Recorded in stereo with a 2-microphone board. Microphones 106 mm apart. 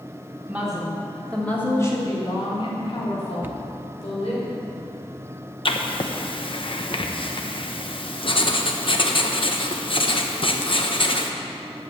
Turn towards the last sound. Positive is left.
turn(degrees=50)  # may be behind; listen again after turning